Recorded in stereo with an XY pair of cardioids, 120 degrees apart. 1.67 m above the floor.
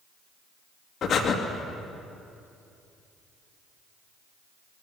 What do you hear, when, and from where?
1.0 s breathing: 50° left, 2.5 m